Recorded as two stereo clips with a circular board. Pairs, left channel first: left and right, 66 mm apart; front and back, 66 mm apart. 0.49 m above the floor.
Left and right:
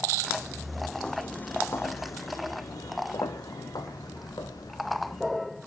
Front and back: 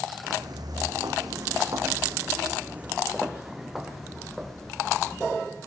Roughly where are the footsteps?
Behind.